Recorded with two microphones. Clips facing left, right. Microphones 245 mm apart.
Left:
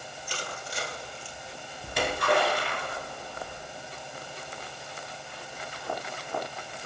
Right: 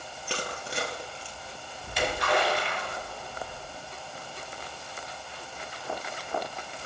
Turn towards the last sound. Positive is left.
turn(degrees=60)  # may be behind; listen again after turning